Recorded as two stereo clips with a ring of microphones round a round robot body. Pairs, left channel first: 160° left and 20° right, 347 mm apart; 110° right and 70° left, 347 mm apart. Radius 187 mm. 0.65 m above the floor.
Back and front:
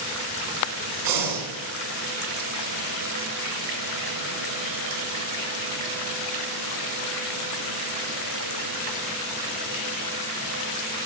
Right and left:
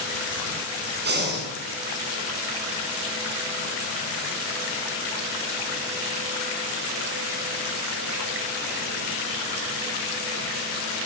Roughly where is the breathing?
Ahead.